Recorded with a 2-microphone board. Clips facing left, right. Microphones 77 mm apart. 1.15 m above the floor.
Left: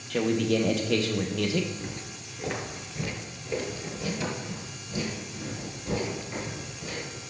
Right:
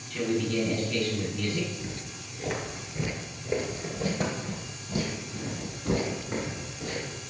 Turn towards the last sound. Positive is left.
turn(degrees=-70)  # may be behind; listen again after turning